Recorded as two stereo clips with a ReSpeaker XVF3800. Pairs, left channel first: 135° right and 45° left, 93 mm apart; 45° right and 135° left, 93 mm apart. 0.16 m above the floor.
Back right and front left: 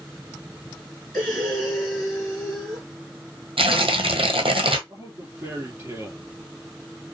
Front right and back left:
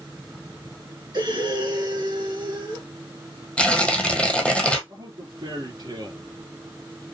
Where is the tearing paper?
30° left, 0.9 m.